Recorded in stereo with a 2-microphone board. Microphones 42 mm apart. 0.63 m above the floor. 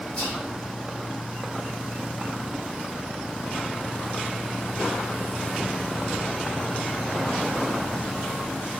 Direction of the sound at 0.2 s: 40° left (ahead or behind).